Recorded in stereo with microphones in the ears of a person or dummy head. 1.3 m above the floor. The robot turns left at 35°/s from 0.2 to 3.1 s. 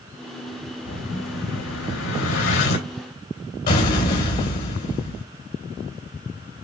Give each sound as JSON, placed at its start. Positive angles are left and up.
{"t": 0.9, "sound": "an explosion", "azimuth_deg": 130, "distance_m": 3.5}